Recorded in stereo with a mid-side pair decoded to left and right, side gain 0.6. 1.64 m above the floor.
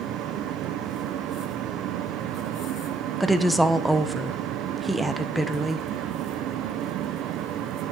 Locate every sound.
0.0 s a fan: 65° right, 0.9 m
3.2 s a woman speaking: 5° right, 1.0 m